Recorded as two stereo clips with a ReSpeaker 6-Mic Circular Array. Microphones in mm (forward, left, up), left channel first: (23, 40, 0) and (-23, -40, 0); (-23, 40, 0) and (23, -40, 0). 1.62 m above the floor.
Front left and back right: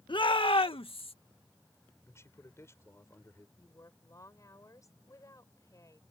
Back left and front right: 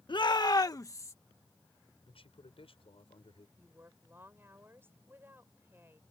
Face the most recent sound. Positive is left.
turn(degrees=5)